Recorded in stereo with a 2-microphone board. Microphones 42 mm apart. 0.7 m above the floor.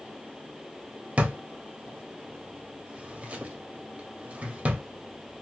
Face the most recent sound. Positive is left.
turn(degrees=-30)  # may be behind; listen again after turning